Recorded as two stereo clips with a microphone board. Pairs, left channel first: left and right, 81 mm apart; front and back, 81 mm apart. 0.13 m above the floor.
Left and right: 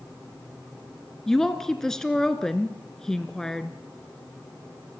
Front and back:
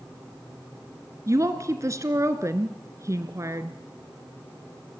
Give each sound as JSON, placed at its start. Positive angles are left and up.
{"t": 1.3, "sound": "a woman speaking", "azimuth_deg": 170, "distance_m": 1.4}